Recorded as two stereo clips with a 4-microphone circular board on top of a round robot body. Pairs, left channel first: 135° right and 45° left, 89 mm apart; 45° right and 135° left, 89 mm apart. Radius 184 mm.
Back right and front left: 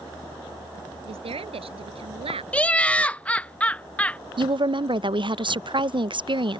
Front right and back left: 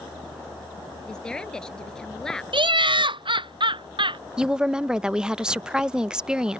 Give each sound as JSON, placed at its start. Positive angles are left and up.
{"t": 1.0, "sound": "a woman speaking", "azimuth_deg": 35}
{"t": 2.5, "sound": "laughter", "azimuth_deg": 150}
{"t": 4.4, "sound": "a woman speaking", "azimuth_deg": 55}